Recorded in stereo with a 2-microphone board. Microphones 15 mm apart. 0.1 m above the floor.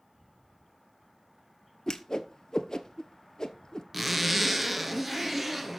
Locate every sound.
1.9 s a whoosh: 55° left (ahead or behind), 1.0 m
3.9 s a zipper: 15° right (ahead or behind), 1.6 m